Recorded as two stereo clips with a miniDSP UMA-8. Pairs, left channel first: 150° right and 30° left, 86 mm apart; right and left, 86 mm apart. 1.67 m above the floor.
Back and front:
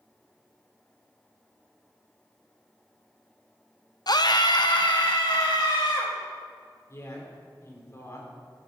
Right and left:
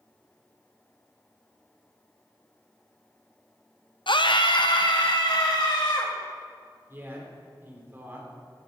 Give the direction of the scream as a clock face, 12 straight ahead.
4 o'clock.